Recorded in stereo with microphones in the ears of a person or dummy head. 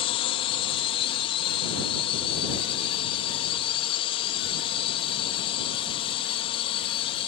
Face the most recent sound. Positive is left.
turn(degrees=30)  # may be behind; listen again after turning